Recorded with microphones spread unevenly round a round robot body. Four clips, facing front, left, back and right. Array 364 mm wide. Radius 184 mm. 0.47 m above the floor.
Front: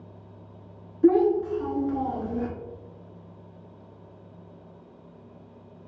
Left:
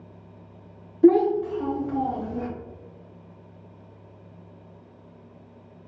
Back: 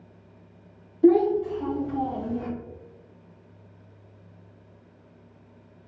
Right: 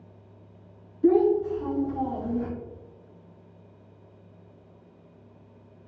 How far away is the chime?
No chime in this recording.